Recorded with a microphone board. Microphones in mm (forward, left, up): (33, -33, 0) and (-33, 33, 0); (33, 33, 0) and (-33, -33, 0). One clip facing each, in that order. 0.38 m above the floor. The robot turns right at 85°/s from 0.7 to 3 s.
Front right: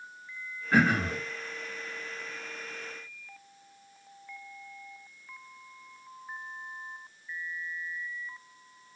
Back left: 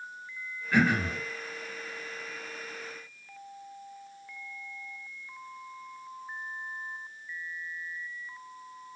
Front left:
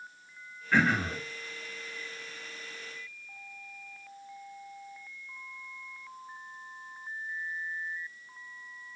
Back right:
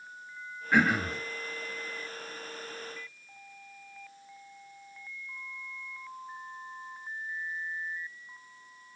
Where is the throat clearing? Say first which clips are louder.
Front right 1 dB, back right 1 dB; 70° right, 0.6 m; by 1.2 s 30° right, 0.6 m.